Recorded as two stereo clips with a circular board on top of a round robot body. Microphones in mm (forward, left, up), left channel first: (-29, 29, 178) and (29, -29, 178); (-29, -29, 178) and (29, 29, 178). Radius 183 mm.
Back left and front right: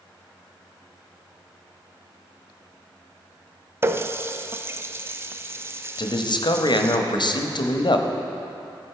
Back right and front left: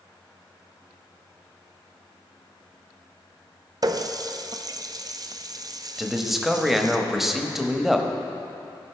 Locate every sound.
3.8 s a running tap: 10° left, 0.6 m
6.0 s a man speaking: 130° left, 0.9 m